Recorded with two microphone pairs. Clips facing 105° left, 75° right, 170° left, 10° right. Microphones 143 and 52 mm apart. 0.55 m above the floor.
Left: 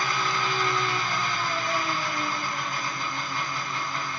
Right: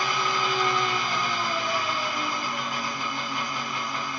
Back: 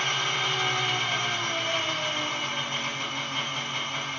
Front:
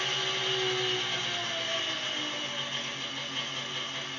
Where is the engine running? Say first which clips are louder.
Right 1 dB, back 5 dB; 155° right, 1.5 m.